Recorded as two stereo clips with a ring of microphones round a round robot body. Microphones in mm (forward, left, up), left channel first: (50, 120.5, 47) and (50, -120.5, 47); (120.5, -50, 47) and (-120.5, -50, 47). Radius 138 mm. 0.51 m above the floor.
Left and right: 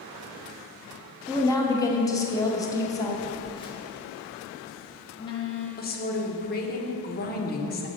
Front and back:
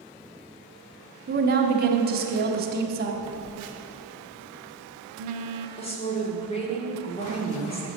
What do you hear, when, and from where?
1.3 s a woman speaking: 160° left, 0.9 m
3.2 s a phone buzzing: 160° left, 0.7 m
5.8 s a woman speaking: 55° left, 1.2 m